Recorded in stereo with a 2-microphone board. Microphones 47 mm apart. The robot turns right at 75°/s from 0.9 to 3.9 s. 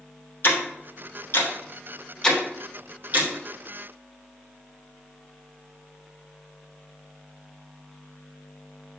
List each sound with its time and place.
0.4 s ticking: 50° left (ahead or behind), 1.5 m; by 3.3 s 50° right (ahead or behind), 1.5 m